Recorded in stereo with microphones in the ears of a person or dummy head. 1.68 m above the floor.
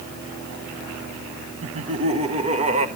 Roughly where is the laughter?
Right.